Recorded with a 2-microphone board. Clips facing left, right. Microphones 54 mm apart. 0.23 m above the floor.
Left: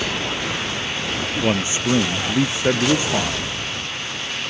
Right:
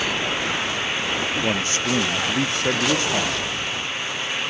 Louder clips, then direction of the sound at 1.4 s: Left 2 dB; 15° left (ahead or behind).